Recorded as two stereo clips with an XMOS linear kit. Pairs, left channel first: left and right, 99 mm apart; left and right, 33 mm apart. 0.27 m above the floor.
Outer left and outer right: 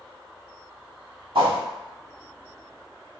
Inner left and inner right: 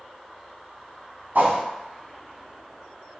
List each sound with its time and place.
1.4 s a whoosh: 60° right (ahead or behind), 0.6 m